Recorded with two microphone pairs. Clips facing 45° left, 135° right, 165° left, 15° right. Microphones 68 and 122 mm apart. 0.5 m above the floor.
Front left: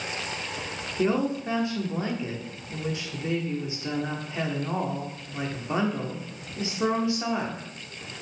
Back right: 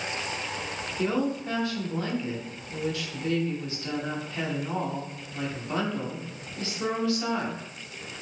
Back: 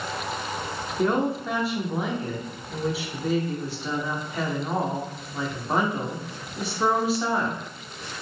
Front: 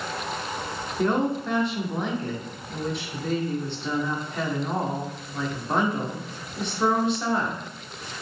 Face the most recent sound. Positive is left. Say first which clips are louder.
# front left 2 dB, even
turn(degrees=80)